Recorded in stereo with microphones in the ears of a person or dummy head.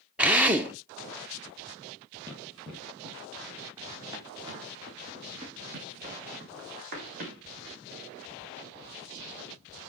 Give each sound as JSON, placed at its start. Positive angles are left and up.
{"t": 0.2, "sound": "a drill", "side_deg": -5, "distance_m": 0.7}
{"t": 2.3, "sound": "running footsteps", "side_deg": 10, "distance_m": 2.5}